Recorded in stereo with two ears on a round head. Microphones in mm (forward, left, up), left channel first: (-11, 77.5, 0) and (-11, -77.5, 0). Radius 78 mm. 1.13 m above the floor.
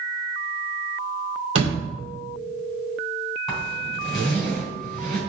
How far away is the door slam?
About 2 m.